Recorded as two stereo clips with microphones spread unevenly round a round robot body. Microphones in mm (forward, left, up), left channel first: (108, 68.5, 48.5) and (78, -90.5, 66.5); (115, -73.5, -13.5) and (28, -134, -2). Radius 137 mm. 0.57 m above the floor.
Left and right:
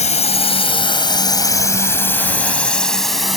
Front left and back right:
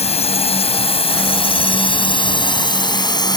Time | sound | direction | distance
0.0 | a drone | 40° left | ?